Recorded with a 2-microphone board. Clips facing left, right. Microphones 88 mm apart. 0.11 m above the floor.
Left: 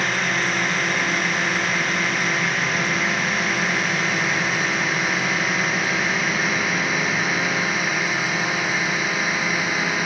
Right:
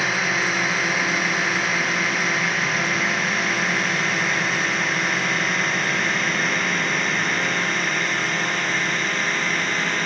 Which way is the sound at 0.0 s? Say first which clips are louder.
Even; centre (ahead or behind).